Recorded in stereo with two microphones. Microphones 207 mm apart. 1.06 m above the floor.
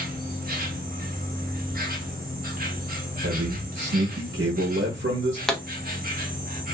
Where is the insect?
45° right (ahead or behind), 0.7 m.